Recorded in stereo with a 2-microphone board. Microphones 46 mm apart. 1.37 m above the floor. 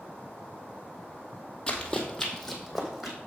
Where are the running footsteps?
15° left (ahead or behind), 1.6 m; by 3.2 s 10° right (ahead or behind), 2.5 m.